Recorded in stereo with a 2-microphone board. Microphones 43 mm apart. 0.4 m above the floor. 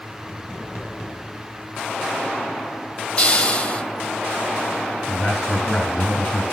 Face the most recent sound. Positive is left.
turn(degrees=15)  # may be behind; listen again after turning